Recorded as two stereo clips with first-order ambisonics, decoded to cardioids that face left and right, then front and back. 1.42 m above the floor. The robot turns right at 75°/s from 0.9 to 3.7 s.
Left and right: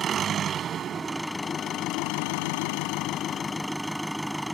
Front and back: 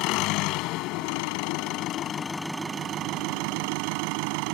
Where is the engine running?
30° right; by 4.5 s straight behind.